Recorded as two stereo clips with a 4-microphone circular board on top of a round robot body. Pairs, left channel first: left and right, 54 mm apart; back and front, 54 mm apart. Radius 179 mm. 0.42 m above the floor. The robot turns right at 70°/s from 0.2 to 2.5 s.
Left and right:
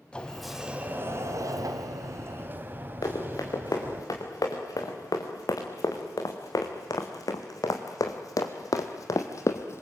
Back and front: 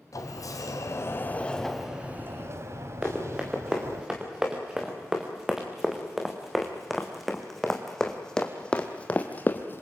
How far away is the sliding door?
About 2.0 m.